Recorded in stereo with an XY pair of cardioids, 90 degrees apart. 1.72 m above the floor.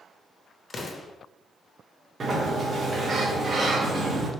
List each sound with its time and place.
0.7 s an explosion: 30° left, 0.7 m
2.2 s a sliding door: 45° right, 0.8 m